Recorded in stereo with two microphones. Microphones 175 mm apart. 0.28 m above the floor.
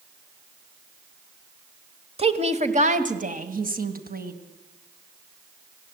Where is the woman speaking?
35° right (ahead or behind), 1.3 m; by 4.3 s 60° right (ahead or behind), 2 m.